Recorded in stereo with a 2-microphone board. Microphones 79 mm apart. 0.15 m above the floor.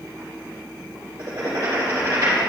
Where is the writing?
50° right (ahead or behind), 3 m.